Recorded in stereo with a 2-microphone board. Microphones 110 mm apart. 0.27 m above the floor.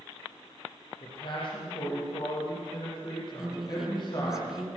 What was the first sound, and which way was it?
A man speaking, 50° left (ahead or behind).